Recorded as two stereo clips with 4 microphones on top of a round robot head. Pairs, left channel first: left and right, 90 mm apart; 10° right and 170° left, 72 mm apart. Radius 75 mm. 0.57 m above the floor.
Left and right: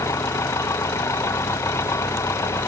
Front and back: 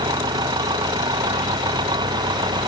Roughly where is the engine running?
Behind left.